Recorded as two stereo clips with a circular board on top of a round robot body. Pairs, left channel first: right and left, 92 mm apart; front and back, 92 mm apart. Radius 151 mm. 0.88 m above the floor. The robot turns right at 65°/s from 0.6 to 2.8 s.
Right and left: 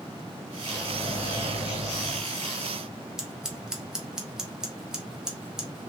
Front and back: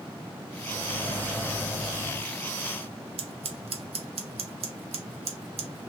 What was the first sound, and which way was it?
A microwave, 160° right.